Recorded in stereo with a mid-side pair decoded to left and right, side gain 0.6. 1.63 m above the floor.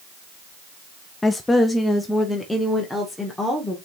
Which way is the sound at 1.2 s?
15° left.